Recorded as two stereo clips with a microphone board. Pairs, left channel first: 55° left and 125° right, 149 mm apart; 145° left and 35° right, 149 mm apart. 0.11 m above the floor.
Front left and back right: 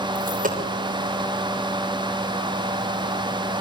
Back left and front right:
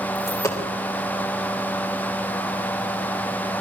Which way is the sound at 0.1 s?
145° right.